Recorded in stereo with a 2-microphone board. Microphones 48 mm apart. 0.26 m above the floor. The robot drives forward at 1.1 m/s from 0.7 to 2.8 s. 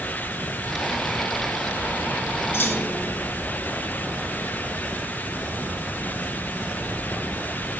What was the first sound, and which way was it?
A clunk, 55° left (ahead or behind).